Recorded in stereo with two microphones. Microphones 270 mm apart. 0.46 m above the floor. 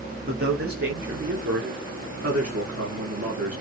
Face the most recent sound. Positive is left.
turn(degrees=-70)  # may be behind; listen again after turning